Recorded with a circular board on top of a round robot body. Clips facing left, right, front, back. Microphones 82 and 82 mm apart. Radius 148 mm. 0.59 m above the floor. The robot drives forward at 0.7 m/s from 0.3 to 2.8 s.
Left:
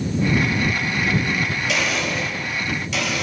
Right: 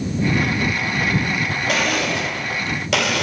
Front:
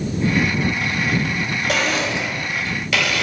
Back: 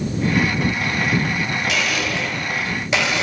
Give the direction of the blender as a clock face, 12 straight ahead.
2 o'clock.